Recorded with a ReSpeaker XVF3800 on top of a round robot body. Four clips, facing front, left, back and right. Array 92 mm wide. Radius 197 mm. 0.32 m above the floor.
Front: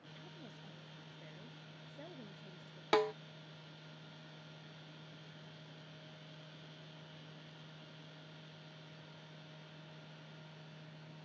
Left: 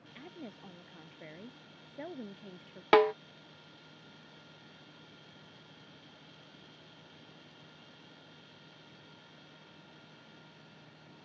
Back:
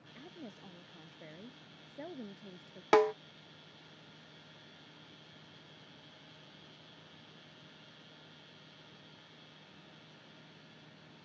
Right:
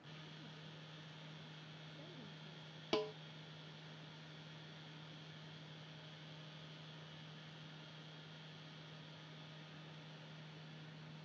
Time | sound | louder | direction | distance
0.1 | a woman speaking | left 13 dB, back 6 dB | 110° left | ?
2.9 | a snare drum | left 17 dB, back 6 dB | 110° left | ?